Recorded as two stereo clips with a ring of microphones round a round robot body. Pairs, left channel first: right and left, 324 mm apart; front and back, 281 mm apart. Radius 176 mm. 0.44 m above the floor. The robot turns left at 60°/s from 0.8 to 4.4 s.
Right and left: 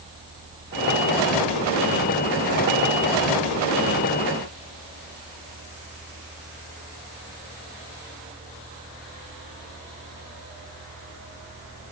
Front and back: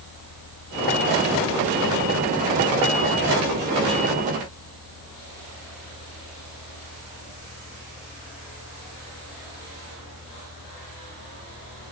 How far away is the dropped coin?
No dropped coin in this recording.